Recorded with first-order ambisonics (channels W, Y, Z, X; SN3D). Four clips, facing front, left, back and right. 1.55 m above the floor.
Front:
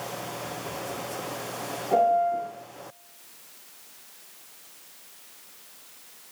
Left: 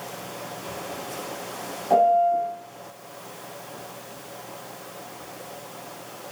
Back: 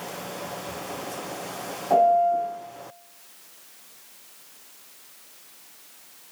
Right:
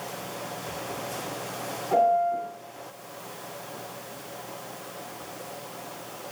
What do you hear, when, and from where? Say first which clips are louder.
1.9 s a piano: left 4 dB, back 3 dB; 130° left, 4.5 m